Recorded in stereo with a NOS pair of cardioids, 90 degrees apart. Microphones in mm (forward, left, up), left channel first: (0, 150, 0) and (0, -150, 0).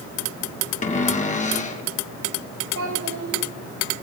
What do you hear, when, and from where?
0.8 s a cupboard door: 25° left, 2.5 m
2.8 s a child speaking: 70° right, 5.5 m